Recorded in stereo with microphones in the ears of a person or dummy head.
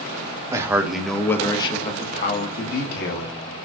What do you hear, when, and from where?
0.5 s a man speaking: 15° right (ahead or behind), 1.0 m; by 3.4 s 65° left (ahead or behind), 1.7 m